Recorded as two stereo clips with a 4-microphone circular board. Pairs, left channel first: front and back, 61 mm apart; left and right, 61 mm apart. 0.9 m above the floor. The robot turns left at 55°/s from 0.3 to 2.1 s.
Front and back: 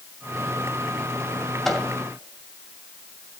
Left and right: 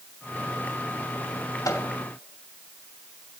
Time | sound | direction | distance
1.6 | a microwave | 85° left | 2.5 m